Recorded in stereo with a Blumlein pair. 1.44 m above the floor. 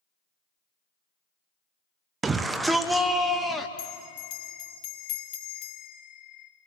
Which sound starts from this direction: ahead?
A shout, at 2.2 s.